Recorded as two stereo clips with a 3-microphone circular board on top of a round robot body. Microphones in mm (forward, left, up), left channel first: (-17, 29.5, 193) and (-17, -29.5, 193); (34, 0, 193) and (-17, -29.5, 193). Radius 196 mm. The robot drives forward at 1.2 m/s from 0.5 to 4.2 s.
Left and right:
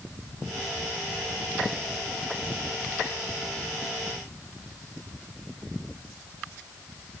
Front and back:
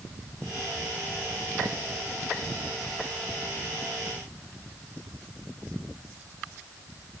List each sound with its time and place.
Only background noise.